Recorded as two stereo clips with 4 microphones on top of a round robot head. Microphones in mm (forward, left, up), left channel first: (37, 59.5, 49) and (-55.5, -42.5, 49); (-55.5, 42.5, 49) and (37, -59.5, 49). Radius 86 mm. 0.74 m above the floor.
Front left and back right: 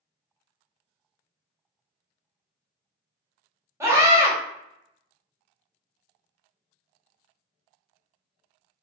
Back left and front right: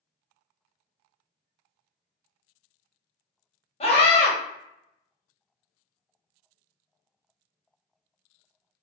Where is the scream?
160° left, 1.4 m.